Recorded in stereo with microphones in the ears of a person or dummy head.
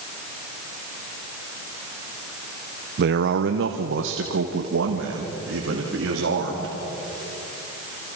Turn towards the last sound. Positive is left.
turn(degrees=-80)